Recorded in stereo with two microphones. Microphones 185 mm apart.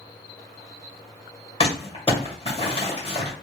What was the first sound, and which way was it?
Crumpling, 35° left (ahead or behind).